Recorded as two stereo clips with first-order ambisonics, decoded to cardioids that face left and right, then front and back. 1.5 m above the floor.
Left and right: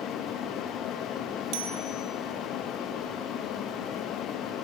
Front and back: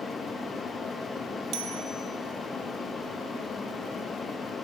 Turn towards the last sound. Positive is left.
turn(degrees=-140)